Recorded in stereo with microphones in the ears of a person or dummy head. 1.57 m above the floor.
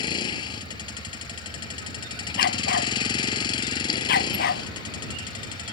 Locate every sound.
0.0 s a vehicle: 25° left (ahead or behind)
2.4 s a dog barking: 55° left (ahead or behind)